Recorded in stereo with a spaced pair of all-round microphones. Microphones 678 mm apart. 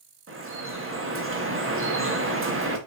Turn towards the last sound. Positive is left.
turn(degrees=-20)  # may be behind; listen again after turning